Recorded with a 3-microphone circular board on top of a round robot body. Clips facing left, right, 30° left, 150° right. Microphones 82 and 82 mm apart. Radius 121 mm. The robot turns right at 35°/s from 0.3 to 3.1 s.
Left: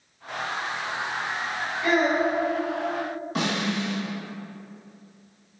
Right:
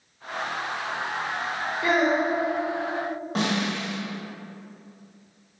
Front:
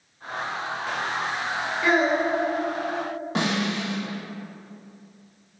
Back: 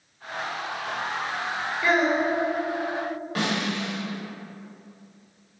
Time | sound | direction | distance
1.8 | a child speaking | 60° right | 1.9 m
3.4 | a snare drum | 35° right | 1.5 m